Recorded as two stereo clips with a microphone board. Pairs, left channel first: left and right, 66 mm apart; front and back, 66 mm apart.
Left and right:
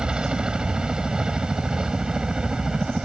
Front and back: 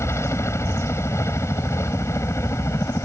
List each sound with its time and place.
0.0 s a helicopter: 15° right